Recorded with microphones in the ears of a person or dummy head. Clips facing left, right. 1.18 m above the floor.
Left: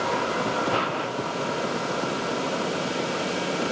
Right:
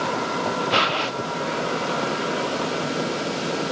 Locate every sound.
Only background noise.